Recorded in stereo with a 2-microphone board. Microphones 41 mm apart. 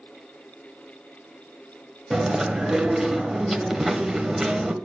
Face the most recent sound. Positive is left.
turn(degrees=-5)  # may be behind; listen again after turning